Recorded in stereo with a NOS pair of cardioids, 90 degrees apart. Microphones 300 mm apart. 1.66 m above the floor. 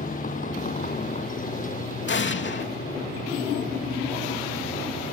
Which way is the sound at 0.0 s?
25° left.